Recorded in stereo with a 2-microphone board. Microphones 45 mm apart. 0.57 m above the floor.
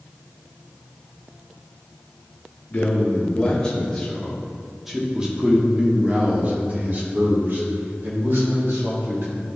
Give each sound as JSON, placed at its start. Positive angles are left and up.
{"t": 2.7, "sound": "a man speaking", "side_deg": 35, "distance_m": 1.7}